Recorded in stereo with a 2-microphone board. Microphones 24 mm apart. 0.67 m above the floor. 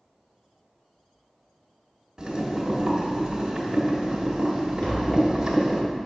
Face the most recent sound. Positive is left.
turn(degrees=55)  # may be behind; listen again after turning